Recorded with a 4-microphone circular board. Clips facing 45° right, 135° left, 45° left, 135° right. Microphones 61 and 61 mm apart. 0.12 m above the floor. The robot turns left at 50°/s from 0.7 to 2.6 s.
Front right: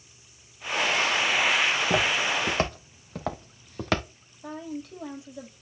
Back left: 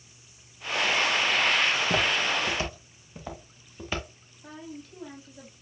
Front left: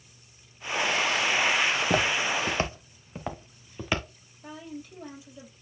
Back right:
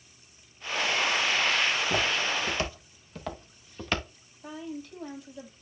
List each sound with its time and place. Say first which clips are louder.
1.6 s footsteps: front right 1 dB, front left 2 dB; 50° left, 2 m; by 4.0 s 40° right, 2 m
4.4 s a woman speaking: front right 6 dB, back right 2 dB; 40° right, 4 m